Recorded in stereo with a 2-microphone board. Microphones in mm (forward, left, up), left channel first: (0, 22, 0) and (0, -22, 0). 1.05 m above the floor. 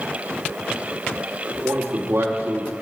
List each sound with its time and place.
1.6 s a man speaking: 65° right (ahead or behind), 2 m